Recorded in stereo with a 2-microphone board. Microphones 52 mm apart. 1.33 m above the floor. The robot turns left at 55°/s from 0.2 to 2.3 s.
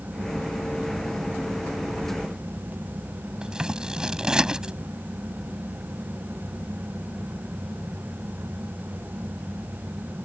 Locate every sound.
3.4 s scissors: 15° right (ahead or behind)